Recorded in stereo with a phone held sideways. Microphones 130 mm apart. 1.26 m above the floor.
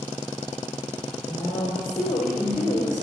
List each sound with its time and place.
1.3 s a woman speaking: 85° left, 4 m